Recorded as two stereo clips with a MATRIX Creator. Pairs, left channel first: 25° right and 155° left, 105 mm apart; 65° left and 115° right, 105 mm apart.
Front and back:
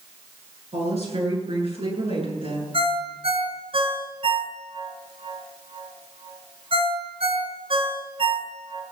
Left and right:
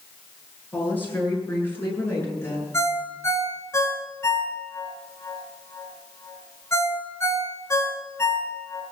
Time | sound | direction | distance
0.7 | a woman speaking | 140° left | 9 m
2.7 | a ringtone | 130° left | 3 m